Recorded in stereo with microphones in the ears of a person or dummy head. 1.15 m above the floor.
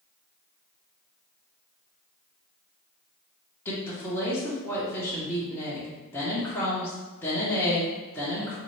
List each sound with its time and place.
3.6 s a woman speaking: 15° left (ahead or behind), 0.9 m